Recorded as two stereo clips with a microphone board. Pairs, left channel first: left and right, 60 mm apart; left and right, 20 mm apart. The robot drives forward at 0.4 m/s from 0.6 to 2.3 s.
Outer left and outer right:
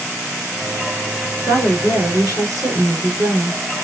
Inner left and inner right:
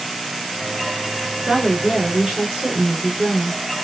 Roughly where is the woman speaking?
Right.